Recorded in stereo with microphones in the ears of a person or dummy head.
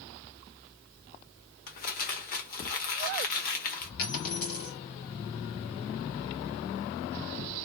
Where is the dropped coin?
55° left (ahead or behind), 1.9 m.